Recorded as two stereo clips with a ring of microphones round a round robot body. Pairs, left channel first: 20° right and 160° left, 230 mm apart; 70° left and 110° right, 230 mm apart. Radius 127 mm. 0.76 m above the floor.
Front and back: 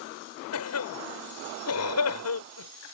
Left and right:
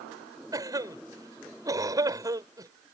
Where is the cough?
35° right.